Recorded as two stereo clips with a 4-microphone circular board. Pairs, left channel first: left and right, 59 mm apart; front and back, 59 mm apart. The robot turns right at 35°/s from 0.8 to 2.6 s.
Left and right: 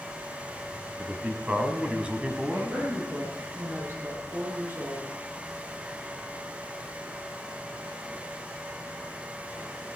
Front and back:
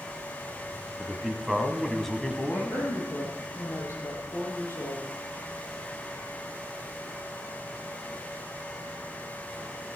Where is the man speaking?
115° right, 1.5 m; by 2.9 s 55° right, 1.5 m.